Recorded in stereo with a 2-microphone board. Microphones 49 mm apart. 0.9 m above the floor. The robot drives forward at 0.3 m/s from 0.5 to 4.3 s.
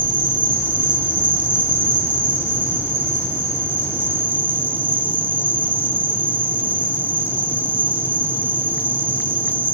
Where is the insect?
30° right (ahead or behind), 8 m; by 9.7 s 35° right (ahead or behind), 7 m.